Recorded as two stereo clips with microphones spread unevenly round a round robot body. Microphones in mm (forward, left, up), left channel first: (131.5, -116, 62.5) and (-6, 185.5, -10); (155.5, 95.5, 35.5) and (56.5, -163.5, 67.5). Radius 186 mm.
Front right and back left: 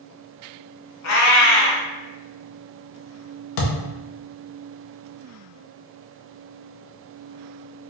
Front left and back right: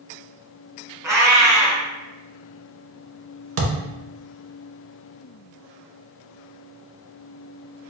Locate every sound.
1.0 s a cat meowing: 35° right, 1.1 m
3.6 s a thud: 75° right, 0.8 m